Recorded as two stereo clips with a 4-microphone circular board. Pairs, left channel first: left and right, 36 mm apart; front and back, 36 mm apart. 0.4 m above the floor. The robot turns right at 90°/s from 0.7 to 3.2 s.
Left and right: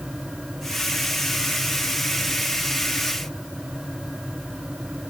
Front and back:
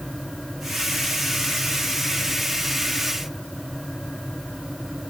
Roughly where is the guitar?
I don't hear a guitar.